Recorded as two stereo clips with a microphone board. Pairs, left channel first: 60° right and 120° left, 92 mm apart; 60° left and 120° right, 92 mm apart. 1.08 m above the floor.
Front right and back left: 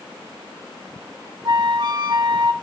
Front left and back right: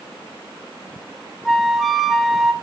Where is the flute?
150° left, 0.6 m.